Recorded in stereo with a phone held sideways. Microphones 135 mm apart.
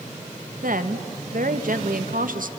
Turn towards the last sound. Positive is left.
turn(degrees=-75)  # may be behind; listen again after turning